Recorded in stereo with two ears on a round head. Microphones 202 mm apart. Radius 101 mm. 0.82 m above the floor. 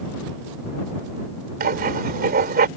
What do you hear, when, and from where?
1.6 s writing: 40° right (ahead or behind)